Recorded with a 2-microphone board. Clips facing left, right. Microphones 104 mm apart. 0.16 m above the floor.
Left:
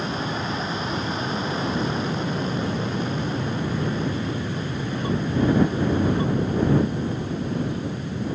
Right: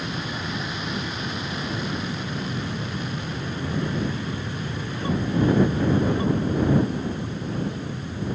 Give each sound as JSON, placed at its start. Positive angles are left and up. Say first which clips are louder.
{"t": 0.0, "sound": "an aircraft", "louder": "left 4 dB", "side_deg": 35}